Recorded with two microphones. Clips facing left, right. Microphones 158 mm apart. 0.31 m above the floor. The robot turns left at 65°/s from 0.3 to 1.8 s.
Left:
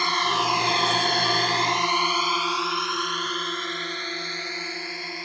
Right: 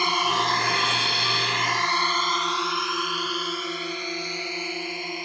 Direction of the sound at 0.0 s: 15° right (ahead or behind).